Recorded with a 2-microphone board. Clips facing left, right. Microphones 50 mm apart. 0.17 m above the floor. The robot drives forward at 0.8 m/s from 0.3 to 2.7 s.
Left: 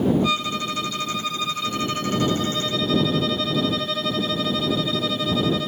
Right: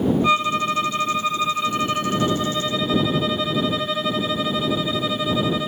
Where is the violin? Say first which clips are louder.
Right 5 dB; 30° right (ahead or behind); by 5.7 s 20° right (ahead or behind).